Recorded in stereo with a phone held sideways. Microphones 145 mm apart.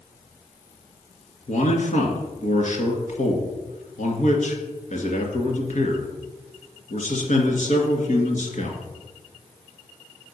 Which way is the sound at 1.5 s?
60° left (ahead or behind).